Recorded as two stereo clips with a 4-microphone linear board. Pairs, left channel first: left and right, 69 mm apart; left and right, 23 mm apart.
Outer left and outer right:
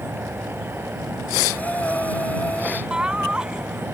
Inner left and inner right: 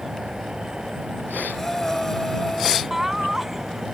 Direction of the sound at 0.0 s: 35° right (ahead or behind).